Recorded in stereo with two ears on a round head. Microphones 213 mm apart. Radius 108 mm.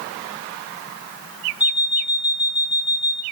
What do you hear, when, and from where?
1.6 s an alarm clock: 5° right (ahead or behind), 1.3 m